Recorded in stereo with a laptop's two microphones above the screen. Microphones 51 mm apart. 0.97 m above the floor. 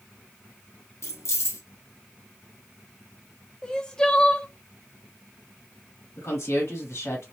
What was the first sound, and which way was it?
Keys jangling, 65° left (ahead or behind).